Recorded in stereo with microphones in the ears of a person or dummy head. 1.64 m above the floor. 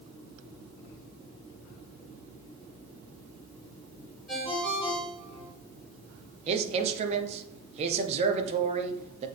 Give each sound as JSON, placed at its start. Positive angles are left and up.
{"t": 4.3, "sound": "a ringtone", "side_deg": 0, "distance_m": 3.5}
{"t": 6.5, "sound": "a man speaking", "side_deg": -35, "distance_m": 0.7}